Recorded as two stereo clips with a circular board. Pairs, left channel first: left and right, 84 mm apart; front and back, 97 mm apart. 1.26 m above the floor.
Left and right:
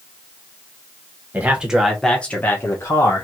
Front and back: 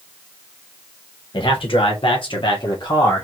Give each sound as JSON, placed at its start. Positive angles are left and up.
{"t": 1.3, "sound": "a man speaking", "azimuth_deg": -20, "distance_m": 1.3}